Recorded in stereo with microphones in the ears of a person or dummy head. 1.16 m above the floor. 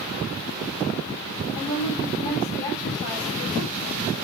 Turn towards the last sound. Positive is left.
turn(degrees=65)  # may be behind; listen again after turning